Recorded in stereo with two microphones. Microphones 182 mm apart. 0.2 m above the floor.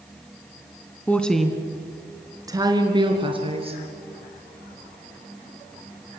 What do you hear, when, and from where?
1.1 s a woman speaking: 10° left (ahead or behind), 1.8 m; by 3.8 s 35° right (ahead or behind), 3.5 m